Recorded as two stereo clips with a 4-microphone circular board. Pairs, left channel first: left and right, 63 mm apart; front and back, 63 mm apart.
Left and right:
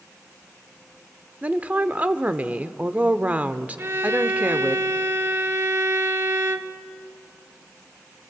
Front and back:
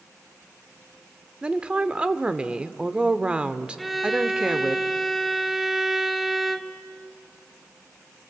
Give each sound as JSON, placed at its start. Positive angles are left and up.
{"t": 1.4, "sound": "a woman speaking", "azimuth_deg": -125, "distance_m": 0.8}
{"t": 3.8, "sound": "a violin", "azimuth_deg": -90, "distance_m": 0.9}